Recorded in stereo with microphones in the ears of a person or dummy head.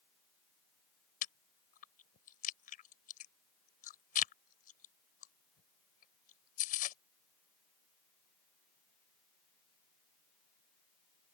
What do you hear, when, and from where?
1.2 s chewing: 45° left (ahead or behind)